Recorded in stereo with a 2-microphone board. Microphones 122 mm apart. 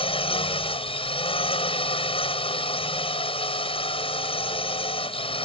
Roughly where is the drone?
Left.